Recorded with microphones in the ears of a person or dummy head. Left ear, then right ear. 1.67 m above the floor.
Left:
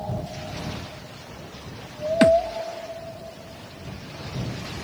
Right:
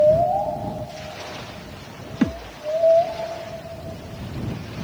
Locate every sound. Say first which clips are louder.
2.2 s a thud: left 10 dB; 45° left (ahead or behind)